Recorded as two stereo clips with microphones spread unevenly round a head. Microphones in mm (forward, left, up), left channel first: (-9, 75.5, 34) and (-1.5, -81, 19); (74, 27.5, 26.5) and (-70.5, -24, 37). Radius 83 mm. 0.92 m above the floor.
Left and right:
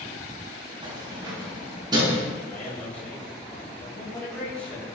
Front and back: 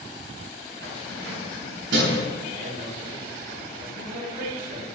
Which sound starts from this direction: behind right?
Keys jangling, at 0.8 s.